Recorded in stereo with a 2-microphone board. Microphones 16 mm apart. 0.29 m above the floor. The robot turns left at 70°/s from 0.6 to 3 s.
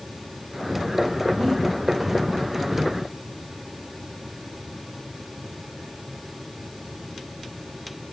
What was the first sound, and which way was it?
Breathing, 25° right (ahead or behind).